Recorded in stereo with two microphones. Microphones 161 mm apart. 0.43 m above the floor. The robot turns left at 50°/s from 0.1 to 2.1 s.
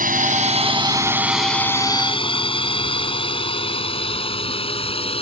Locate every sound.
0.0 s a drone: 60° right (ahead or behind); by 5.2 s 35° left (ahead or behind)